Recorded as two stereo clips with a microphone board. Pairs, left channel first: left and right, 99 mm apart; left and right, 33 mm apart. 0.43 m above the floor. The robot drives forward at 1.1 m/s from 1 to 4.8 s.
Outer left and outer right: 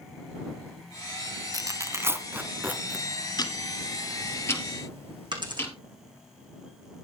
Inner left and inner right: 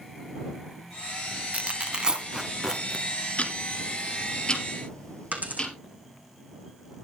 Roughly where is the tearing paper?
Right.